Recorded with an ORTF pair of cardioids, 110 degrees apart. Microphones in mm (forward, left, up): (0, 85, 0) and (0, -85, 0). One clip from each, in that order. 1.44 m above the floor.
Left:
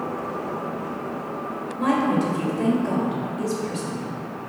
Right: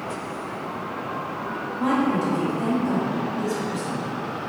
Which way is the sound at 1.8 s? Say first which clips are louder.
Left 1 dB; 50° left.